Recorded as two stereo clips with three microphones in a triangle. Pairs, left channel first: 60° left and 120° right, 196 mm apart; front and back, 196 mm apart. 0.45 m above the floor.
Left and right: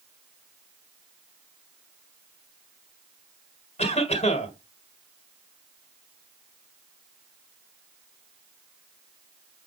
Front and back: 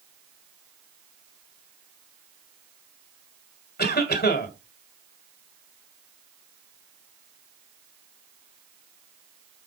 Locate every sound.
3.8 s a cough: 10° left, 2 m